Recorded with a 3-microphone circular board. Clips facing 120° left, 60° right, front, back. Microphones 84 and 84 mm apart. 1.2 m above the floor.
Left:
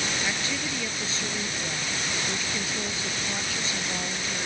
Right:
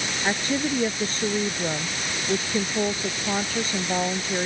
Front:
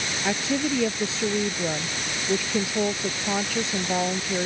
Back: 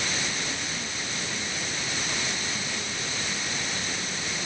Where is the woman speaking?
10° right.